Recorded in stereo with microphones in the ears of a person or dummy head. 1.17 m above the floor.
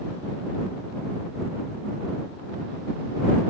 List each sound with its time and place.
Only background noise.